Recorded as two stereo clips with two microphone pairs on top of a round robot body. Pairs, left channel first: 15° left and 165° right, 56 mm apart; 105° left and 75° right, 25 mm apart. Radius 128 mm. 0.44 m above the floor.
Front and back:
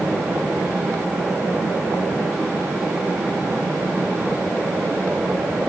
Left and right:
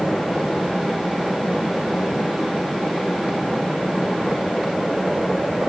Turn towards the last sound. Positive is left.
No sound to turn to.